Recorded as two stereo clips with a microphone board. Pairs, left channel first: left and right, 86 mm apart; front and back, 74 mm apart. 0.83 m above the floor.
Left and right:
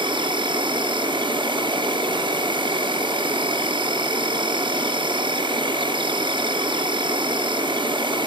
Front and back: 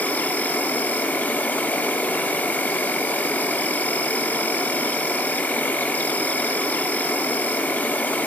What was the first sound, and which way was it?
An insect, 70° right.